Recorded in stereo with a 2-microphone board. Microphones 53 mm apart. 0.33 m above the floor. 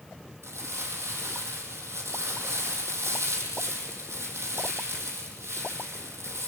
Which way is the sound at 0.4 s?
55° right (ahead or behind).